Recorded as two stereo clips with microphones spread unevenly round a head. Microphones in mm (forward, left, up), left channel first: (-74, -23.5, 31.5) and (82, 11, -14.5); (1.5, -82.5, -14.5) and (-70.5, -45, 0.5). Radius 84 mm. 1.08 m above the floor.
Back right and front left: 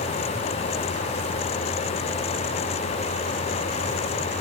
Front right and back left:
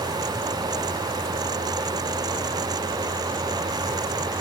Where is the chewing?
I don't hear chewing.